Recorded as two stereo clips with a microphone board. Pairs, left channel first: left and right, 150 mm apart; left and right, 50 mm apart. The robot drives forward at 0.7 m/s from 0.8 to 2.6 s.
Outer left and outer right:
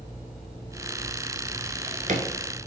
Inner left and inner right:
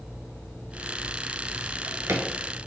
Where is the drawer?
75° right (ahead or behind), 0.8 m; by 2.3 s 55° right (ahead or behind), 0.9 m.